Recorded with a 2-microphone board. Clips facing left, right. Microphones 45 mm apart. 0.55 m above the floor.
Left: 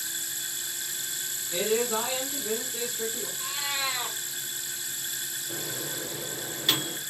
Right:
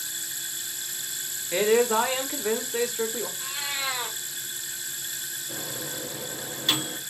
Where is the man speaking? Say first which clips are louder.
Right 6 dB; 60° right (ahead or behind), 1.5 m.